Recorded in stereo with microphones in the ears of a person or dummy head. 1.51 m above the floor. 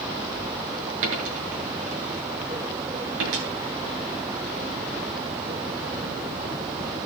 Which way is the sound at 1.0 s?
75° right (ahead or behind).